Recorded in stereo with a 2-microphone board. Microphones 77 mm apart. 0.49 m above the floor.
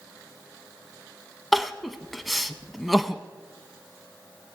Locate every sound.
1.5 s crying: centre (ahead or behind), 0.6 m